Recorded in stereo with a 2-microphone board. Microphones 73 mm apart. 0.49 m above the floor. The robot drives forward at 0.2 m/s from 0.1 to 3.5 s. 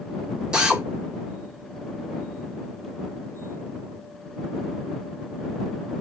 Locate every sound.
0.5 s a drill: 10° right (ahead or behind), 1.1 m